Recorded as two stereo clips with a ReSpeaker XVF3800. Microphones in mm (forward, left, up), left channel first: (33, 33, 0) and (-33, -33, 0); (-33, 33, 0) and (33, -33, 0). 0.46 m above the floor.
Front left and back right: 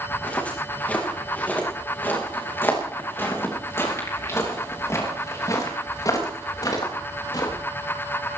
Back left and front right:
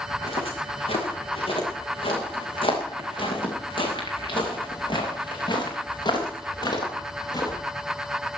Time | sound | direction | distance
0.1 | footsteps | 120° left | 6.5 m